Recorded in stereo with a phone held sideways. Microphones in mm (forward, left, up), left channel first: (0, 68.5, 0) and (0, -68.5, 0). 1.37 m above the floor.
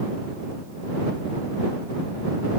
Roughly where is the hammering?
I don't hear hammering.